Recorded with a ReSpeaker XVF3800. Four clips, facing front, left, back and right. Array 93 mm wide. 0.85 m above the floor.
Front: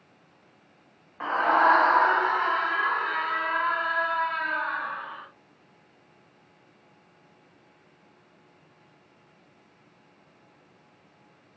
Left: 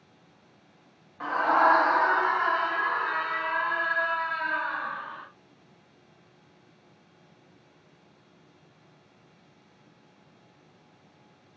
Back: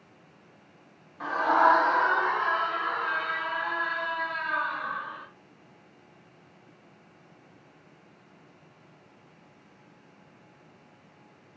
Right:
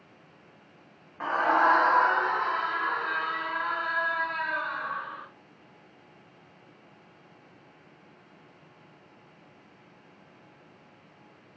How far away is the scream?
About 0.9 m.